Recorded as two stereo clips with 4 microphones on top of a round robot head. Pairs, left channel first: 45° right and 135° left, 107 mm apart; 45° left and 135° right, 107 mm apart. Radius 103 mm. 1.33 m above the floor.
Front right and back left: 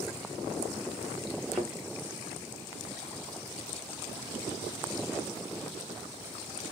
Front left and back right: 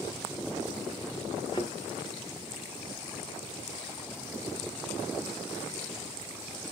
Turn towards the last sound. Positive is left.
turn(degrees=60)